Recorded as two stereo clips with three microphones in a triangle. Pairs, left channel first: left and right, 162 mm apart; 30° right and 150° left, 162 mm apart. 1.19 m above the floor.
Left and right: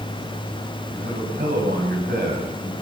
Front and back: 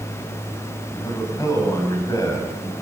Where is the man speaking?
100° right, 6.5 m.